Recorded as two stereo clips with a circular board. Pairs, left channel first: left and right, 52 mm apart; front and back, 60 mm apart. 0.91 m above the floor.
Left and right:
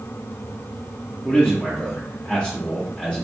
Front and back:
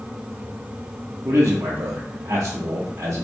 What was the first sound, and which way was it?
A man speaking, 155° left.